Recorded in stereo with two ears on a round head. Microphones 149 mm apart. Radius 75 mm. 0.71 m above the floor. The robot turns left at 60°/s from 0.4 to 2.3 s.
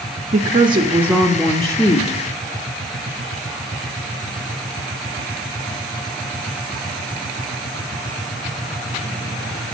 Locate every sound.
0.3 s a woman speaking: 125° right, 0.7 m; by 2.2 s 130° left, 0.7 m